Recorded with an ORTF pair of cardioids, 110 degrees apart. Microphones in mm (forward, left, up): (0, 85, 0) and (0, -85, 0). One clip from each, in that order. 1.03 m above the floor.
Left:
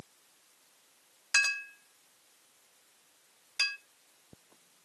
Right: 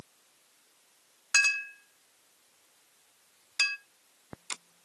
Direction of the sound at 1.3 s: 20° right.